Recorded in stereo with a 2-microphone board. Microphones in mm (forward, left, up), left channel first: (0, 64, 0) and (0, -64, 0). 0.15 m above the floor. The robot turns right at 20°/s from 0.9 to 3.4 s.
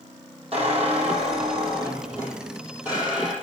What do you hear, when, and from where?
0.5 s a squeak: 50° right, 3 m; by 3.3 s 5° right, 3 m